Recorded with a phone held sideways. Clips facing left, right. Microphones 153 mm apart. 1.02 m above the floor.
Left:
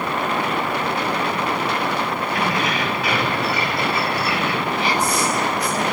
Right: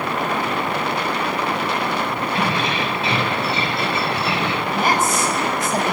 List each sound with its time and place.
2.4 s keys jangling: 25° right (ahead or behind), 4.5 m
4.7 s a woman speaking: 45° right (ahead or behind), 7.5 m